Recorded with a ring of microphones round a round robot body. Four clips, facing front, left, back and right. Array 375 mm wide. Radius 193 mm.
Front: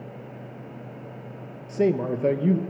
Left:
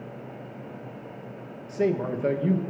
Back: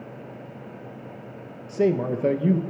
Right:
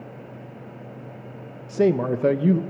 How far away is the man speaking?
About 0.9 m.